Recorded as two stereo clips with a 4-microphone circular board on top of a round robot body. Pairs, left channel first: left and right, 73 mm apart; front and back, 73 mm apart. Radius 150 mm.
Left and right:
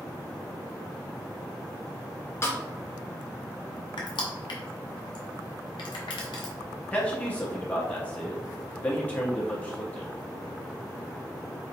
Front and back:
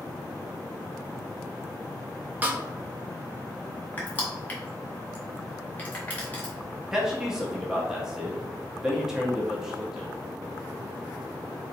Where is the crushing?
70° left, 0.6 m.